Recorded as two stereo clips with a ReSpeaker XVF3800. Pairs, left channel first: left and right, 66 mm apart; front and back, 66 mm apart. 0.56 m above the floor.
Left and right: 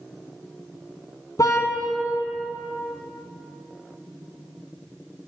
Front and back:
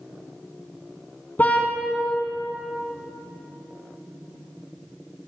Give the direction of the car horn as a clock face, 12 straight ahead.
10 o'clock.